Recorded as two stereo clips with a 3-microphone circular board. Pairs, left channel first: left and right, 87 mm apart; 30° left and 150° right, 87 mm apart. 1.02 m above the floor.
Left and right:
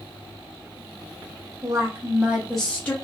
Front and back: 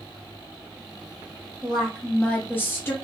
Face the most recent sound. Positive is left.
turn(degrees=50)